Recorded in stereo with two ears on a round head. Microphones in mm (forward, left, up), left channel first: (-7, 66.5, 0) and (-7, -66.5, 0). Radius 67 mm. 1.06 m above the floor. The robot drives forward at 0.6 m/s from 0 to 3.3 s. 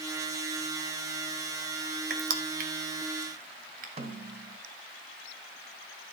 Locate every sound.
2.1 s crushing: 80° right, 2 m; by 3.9 s 60° right (ahead or behind), 2.5 m
4.0 s a snare drum: 45° right (ahead or behind), 2 m